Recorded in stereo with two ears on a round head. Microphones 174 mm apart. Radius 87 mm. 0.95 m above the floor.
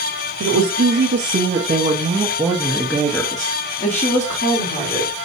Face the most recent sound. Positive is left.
turn(degrees=45)  # may be behind; listen again after turning